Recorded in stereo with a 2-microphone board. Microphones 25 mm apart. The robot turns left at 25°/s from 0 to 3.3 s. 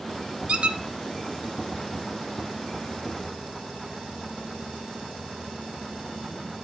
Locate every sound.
0.5 s a squeak: 55° right (ahead or behind), 0.5 m